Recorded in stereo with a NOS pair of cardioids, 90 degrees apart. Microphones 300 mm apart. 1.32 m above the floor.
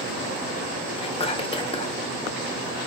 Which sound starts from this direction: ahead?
Whispering, at 1.0 s.